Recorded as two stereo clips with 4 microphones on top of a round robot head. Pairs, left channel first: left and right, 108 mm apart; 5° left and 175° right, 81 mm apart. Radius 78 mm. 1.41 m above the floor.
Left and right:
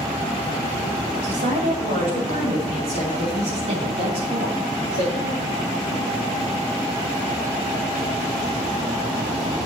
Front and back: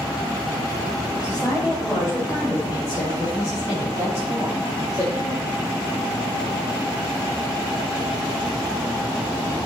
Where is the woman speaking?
100° right, 5 m; by 5.5 s 115° right, 2.5 m.